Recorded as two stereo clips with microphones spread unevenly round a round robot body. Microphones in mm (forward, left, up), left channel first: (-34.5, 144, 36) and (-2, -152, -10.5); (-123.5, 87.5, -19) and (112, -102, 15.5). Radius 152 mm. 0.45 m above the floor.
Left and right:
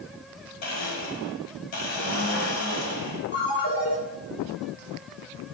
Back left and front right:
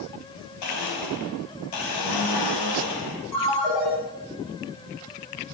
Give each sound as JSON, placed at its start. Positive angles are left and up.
{"t": 0.6, "sound": "a blender", "azimuth_deg": 135, "distance_m": 1.7}
{"t": 3.3, "sound": "a ringtone", "azimuth_deg": 155, "distance_m": 4.0}